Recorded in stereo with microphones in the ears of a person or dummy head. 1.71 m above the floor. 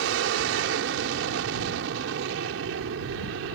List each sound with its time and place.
0.0 s an aircraft: 70° right (ahead or behind)